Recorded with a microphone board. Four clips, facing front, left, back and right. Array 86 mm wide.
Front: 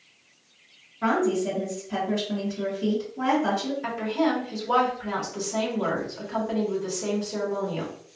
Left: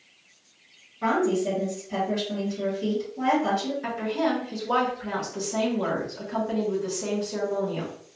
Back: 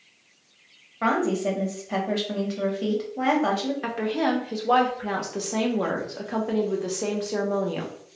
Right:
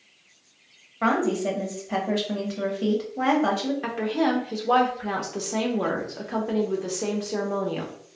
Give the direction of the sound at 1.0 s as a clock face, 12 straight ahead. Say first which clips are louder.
Even, even; 5 o'clock.